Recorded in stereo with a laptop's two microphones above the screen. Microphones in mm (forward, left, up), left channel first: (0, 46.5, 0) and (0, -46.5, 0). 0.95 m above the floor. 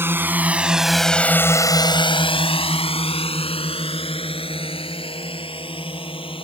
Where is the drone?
25° right (ahead or behind); by 6.5 s 65° left (ahead or behind).